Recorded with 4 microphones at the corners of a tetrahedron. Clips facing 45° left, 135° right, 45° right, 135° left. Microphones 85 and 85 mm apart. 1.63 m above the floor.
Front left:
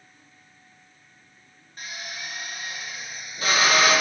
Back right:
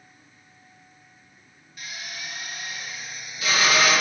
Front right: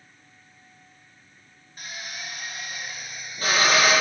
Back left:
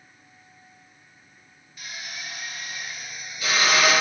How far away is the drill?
About 1.3 m.